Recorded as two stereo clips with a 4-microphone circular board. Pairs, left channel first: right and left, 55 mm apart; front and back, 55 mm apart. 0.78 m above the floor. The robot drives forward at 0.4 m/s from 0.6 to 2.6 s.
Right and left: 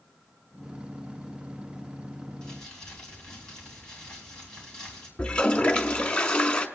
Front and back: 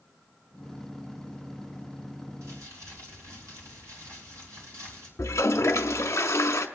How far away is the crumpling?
About 2.5 m.